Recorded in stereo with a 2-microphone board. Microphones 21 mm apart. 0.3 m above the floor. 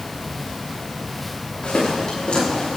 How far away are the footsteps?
About 10 m.